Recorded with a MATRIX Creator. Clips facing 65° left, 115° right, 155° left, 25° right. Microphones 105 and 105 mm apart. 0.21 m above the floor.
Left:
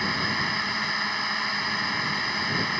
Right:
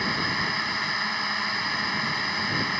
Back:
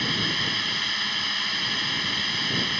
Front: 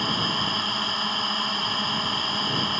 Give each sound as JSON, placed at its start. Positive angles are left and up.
{"t": 0.0, "sound": "a drone", "azimuth_deg": -25}